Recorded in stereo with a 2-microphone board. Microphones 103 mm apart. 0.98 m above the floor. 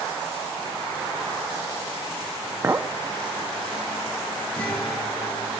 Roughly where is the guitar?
Centre.